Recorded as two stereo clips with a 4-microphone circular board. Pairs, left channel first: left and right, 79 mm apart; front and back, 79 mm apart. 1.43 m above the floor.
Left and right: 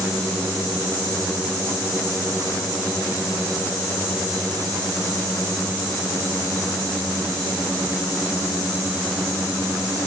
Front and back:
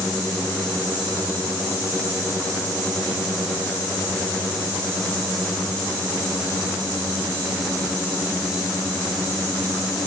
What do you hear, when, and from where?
Only background noise.